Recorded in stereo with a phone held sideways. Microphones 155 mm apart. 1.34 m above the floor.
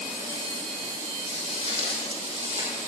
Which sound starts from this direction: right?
Footsteps, at 1.2 s.